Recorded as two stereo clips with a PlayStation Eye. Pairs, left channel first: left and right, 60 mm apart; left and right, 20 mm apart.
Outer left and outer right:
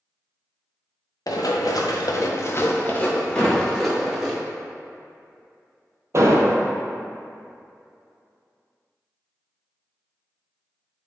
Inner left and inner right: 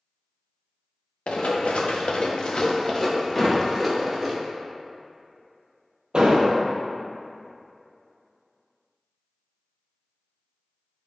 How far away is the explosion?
About 0.6 m.